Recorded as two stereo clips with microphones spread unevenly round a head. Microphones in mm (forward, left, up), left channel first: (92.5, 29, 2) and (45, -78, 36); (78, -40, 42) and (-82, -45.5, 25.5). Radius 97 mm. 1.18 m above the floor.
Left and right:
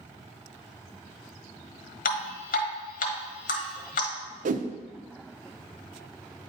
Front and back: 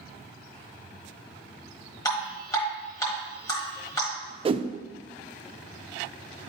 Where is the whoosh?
130° right, 0.6 m.